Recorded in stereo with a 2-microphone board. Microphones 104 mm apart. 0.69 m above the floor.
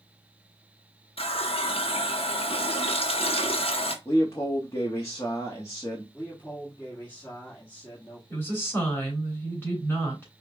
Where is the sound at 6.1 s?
15° left (ahead or behind), 1.5 m.